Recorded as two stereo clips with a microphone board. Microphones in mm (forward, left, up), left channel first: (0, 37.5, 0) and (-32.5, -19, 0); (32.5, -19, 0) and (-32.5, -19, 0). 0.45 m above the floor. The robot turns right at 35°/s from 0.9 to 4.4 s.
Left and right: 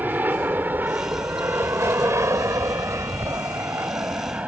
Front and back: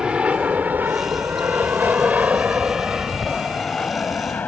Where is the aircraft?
120° right; by 4.5 s 60° right.